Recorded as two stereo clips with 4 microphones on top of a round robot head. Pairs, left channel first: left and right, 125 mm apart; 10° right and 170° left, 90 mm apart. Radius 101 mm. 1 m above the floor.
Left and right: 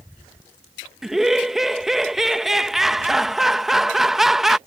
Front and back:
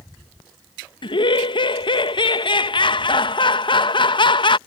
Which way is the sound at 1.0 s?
5° right.